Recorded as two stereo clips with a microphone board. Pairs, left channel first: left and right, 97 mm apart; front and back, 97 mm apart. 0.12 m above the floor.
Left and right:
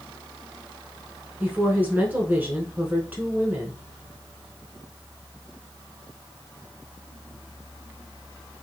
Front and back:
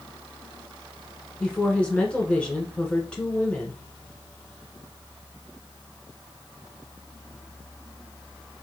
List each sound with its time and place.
1.4 s a woman speaking: 60° right, 1.1 m